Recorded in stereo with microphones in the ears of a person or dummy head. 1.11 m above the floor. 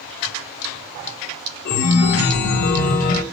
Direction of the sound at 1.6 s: 55° left (ahead or behind).